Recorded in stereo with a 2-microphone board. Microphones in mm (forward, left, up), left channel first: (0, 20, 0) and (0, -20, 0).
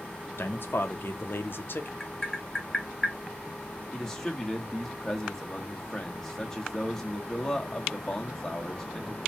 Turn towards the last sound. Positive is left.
turn(degrees=10)  # may be behind; listen again after turning